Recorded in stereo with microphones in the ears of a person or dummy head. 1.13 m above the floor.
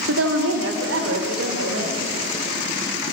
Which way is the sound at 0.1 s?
85° right.